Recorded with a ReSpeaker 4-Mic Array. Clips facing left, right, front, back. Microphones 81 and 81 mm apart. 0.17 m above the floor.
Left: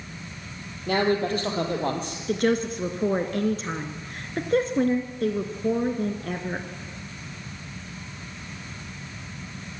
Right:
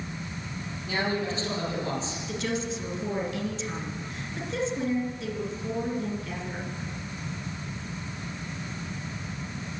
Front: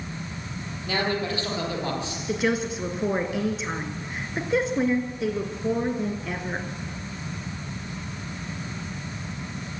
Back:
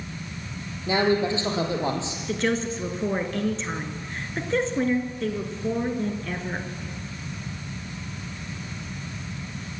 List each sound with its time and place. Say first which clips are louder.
0.9 s a man speaking: left 6 dB, back 5 dB; 115° left, 5 m
2.3 s a woman speaking: left 9 dB, front 1 dB; 80° left, 2.5 m